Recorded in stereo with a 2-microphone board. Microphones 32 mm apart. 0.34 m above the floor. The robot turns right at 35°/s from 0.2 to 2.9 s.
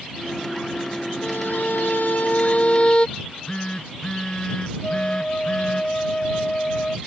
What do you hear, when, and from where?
1.2 s a violin: 85° left; by 3.1 s 145° left
3.2 s a phone buzzing: 25° left (ahead or behind)
4.8 s a flute: 35° left (ahead or behind)